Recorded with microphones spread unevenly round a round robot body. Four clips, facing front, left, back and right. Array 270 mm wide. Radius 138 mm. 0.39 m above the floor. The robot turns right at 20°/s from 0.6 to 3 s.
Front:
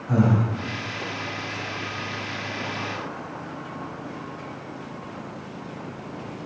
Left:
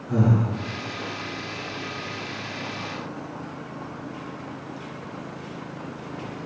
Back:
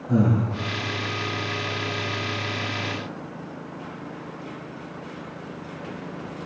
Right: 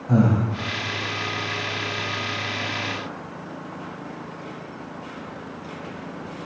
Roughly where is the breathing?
Ahead right.